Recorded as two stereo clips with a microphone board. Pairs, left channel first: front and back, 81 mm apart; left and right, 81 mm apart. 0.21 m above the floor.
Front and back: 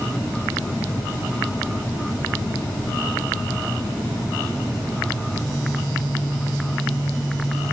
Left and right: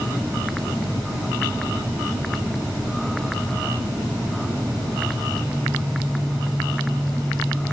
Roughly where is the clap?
No clap in this recording.